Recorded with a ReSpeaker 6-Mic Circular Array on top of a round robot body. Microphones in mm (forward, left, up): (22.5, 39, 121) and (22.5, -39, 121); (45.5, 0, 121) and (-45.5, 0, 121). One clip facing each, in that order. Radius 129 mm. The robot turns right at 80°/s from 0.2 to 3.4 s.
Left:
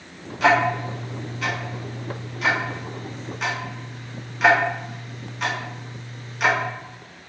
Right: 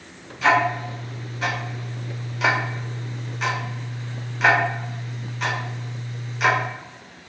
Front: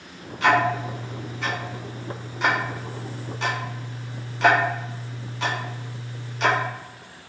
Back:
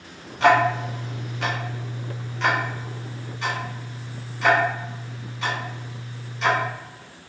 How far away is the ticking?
About 0.5 m.